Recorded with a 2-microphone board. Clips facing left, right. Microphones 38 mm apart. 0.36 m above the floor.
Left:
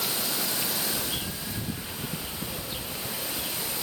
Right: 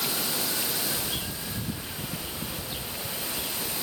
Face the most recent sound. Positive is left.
No sound to turn to.